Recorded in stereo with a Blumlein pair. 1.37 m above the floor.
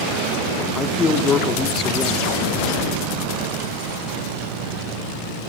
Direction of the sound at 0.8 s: 20° left.